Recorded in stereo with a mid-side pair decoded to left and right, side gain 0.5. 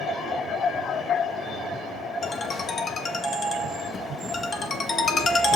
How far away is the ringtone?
About 0.9 m.